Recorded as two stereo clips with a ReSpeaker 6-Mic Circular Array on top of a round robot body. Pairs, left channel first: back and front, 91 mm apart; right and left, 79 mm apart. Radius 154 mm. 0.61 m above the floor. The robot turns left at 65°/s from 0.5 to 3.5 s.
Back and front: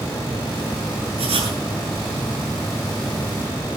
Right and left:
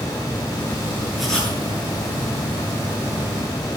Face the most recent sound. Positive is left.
turn(degrees=-150)